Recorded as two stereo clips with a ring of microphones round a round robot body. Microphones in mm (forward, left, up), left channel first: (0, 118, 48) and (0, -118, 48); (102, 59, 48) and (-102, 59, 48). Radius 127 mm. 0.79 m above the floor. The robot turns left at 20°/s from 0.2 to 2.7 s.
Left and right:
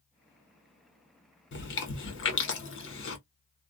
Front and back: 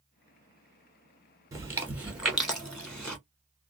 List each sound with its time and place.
1.5 s chewing: 110° left, 1.4 m; by 3.2 s 85° left, 1.4 m